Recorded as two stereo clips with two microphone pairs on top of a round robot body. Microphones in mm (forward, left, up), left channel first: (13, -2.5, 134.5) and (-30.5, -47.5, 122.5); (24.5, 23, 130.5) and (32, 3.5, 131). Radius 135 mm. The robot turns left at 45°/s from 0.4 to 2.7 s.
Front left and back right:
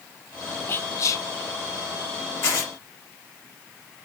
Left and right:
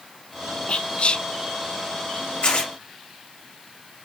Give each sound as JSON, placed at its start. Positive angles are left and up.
{"t": 0.7, "sound": "whispering", "azimuth_deg": 100, "distance_m": 0.6}
{"t": 2.4, "sound": "tearing paper", "azimuth_deg": 85, "distance_m": 3.0}